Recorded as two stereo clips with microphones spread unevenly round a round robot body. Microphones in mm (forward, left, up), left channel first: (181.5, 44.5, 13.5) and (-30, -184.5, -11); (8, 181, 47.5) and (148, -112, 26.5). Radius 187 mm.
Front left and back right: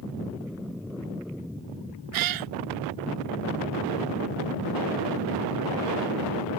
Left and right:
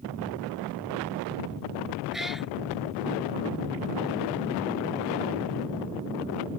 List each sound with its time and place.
2.1 s a cat meowing: 155° right